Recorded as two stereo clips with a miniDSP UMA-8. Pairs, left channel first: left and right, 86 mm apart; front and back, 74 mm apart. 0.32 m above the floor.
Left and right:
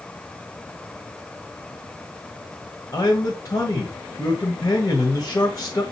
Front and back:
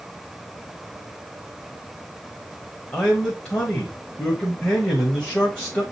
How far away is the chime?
No chime in this recording.